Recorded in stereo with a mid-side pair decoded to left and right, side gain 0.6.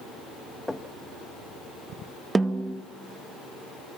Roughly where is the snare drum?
Ahead.